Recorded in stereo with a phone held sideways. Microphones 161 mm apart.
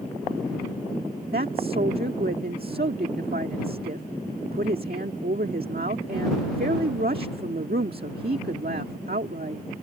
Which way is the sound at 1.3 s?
70° right (ahead or behind).